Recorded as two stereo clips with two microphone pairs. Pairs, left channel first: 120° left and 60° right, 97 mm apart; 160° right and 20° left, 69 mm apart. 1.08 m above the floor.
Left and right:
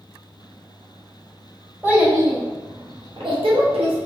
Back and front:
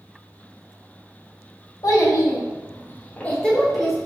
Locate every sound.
1.8 s a child speaking: 130° right, 1.3 m; by 4.0 s 65° right, 1.1 m